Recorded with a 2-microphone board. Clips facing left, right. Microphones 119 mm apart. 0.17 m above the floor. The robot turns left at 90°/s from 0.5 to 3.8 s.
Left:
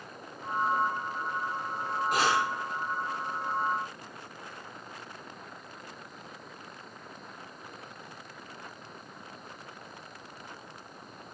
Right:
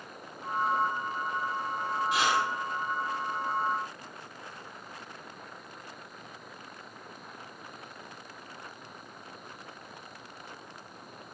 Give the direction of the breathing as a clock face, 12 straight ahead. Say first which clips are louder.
Left 1 dB; 10 o'clock.